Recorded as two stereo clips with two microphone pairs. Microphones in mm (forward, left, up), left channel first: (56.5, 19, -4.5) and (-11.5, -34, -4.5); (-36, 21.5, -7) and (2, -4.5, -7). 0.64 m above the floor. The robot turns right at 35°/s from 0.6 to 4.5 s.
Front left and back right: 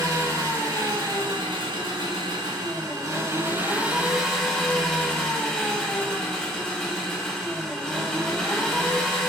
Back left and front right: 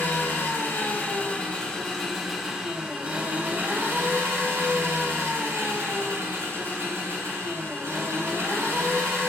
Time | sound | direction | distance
0.0 | an engine running | straight behind | 1.0 m